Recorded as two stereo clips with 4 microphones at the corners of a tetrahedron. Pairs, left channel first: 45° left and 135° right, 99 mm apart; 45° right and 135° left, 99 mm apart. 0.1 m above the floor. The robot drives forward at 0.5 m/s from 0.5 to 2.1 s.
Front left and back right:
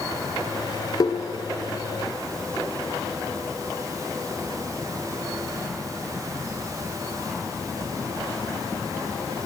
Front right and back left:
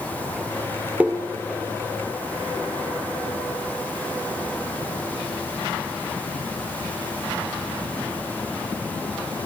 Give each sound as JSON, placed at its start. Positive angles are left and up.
{"t": 1.0, "sound": "tapping", "azimuth_deg": 65, "distance_m": 1.5}